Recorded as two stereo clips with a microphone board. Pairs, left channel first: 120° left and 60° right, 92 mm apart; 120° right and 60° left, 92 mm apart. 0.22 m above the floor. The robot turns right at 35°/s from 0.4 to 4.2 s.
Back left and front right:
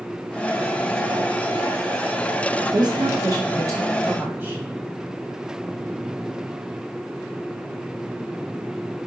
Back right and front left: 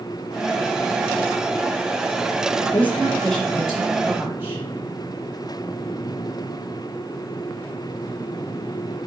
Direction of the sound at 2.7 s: 55° right.